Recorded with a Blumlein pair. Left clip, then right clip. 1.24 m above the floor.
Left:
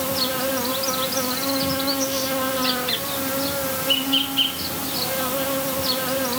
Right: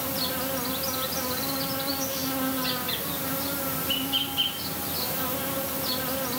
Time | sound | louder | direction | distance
0.0 | an insect | left 7 dB | 70° left | 1.0 m